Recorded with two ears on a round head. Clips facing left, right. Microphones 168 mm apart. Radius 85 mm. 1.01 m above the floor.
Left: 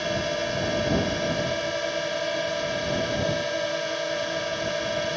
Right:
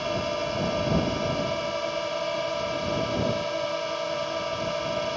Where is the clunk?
I don't hear a clunk.